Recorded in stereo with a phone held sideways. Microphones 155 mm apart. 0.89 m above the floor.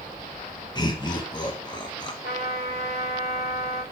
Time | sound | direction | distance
0.8 | laughter | 30° left (ahead or behind) | 0.9 m
2.2 | a trumpet | 65° left (ahead or behind) | 3.5 m